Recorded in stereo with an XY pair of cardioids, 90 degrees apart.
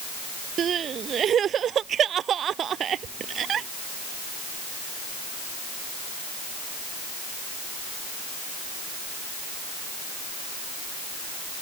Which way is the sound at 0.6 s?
65° right.